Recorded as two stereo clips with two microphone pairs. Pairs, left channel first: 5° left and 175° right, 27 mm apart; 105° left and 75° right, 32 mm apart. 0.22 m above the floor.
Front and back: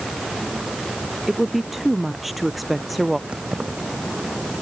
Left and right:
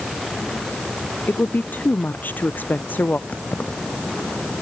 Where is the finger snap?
No finger snap in this recording.